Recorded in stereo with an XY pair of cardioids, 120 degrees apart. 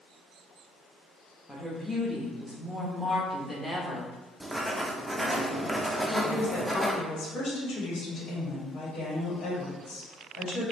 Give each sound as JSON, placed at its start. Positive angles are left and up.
{"t": 1.5, "sound": "a woman speaking", "azimuth_deg": 0, "distance_m": 1.3}
{"t": 4.4, "sound": "writing", "azimuth_deg": -5, "distance_m": 0.7}
{"t": 6.1, "sound": "a woman speaking", "azimuth_deg": 50, "distance_m": 1.9}